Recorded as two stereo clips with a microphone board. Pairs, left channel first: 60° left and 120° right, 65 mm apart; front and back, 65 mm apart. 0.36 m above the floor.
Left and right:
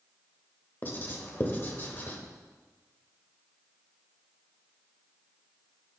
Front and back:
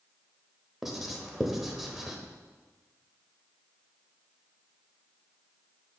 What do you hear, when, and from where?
0.8 s writing: 95° left, 1.0 m